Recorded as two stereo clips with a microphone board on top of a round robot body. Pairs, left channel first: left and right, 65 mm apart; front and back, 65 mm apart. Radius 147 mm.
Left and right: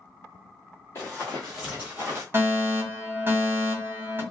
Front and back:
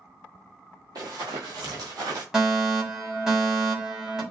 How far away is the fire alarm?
About 2.0 m.